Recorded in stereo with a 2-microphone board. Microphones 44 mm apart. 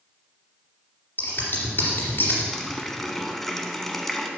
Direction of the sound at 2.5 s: 10° left (ahead or behind).